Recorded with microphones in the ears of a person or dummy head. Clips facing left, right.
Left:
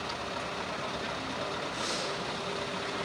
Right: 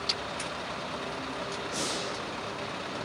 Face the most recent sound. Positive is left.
turn(degrees=-60)  # may be behind; listen again after turning